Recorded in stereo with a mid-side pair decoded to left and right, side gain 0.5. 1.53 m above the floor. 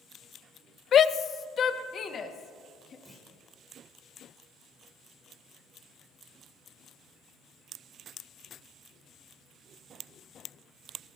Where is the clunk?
10° right, 5.5 m.